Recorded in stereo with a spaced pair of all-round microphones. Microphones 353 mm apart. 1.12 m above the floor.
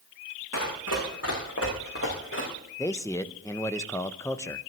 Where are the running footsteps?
50° left (ahead or behind), 5.5 m; by 2.5 s 35° left (ahead or behind), 5.5 m.